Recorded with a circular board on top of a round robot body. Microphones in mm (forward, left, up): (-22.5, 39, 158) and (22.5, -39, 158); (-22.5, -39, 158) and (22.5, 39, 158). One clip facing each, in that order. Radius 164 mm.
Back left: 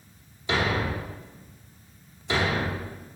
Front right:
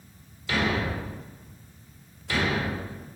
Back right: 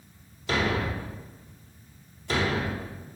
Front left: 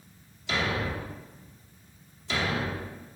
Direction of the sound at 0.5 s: 170° right.